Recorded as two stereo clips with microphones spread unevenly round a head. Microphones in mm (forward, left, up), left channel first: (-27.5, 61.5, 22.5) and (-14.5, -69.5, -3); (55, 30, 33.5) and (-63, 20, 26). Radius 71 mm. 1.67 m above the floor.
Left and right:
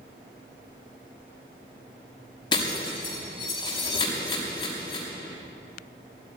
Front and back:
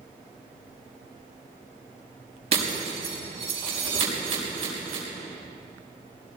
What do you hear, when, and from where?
2.5 s breaking glass: 150° left, 6 m